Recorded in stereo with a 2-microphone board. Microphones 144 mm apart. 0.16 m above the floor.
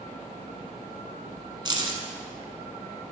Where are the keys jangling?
35° right (ahead or behind), 1.0 m.